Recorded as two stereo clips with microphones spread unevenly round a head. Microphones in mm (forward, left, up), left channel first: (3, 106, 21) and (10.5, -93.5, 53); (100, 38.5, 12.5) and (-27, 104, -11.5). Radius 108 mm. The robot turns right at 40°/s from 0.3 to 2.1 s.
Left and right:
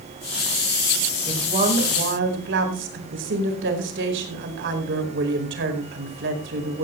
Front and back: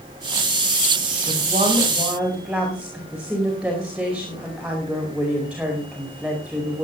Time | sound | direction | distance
1.3 | a woman speaking | 155° right | 4.5 m